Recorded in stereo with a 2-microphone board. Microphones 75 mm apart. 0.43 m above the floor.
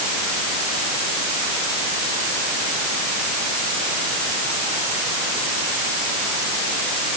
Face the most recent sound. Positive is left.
No sound to turn to.